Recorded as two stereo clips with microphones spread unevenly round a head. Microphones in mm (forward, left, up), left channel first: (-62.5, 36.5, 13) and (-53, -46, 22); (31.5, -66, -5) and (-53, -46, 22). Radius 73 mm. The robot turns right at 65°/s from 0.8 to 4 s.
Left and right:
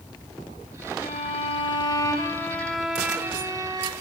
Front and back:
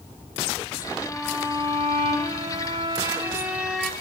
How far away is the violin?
About 3.5 m.